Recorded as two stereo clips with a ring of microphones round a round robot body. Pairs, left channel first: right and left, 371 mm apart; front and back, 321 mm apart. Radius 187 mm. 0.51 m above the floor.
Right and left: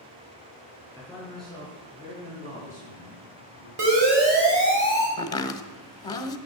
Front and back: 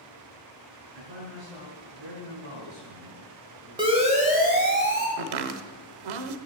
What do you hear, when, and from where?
0.9 s a man speaking: 175° left, 8.5 m; by 3.7 s 155° left, 7.5 m
3.8 s a siren: 105° left, 3.5 m; by 5.1 s 130° left, 4 m
5.2 s chopping: 170° right, 0.9 m